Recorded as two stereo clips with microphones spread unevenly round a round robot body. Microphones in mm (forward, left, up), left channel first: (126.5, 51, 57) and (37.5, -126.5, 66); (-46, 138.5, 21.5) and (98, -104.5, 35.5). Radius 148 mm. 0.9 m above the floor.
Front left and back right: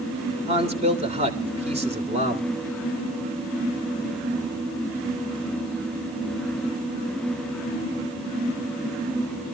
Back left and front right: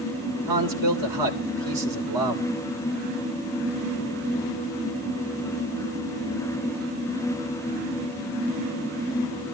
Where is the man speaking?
55° right, 3 m.